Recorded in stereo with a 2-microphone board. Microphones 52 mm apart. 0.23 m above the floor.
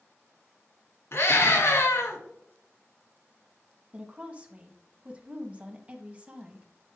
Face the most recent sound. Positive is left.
turn(degrees=-25)  # may be behind; listen again after turning